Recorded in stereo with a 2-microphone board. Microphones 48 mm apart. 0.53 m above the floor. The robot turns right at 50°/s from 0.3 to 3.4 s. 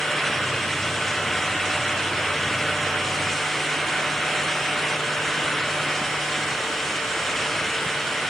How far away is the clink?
I don't hear a clink.